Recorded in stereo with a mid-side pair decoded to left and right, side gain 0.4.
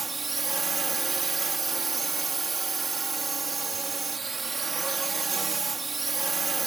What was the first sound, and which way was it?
A drone, 30° right.